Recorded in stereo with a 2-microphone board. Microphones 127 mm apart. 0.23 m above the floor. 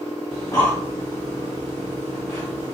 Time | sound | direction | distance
0.3 | breathing | 25° left (ahead or behind) | 1.3 m